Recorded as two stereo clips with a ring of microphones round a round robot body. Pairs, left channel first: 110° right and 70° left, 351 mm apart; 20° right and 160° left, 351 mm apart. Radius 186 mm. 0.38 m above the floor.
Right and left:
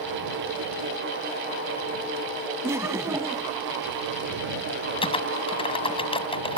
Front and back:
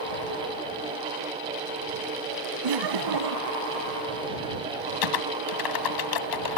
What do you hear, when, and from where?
2.6 s laughter: 150° left
5.0 s typing on a keyboard: 40° right